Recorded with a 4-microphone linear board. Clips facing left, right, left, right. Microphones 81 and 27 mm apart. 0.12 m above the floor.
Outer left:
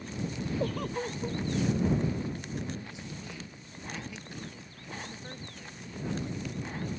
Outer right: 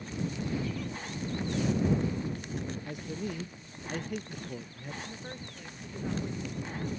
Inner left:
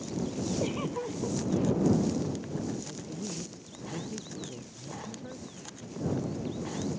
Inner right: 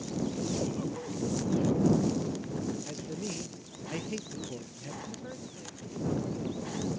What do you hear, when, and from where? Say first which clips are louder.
0.6 s a giggle: outer left 4 dB, inner left 2 dB; 60° left (ahead or behind)
2.9 s a man speaking: outer right 6 dB, inner right 1 dB; 55° right (ahead or behind)
5.0 s a woman speaking: outer right 1 dB, even; 15° right (ahead or behind)